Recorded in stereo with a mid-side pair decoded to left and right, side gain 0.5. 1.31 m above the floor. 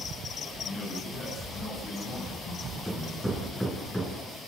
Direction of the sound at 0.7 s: 45° left.